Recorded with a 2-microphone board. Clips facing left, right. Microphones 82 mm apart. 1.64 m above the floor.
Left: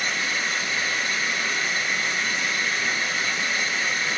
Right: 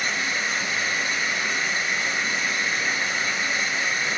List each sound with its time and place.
0.0 s running water: 10° right (ahead or behind), 1.5 m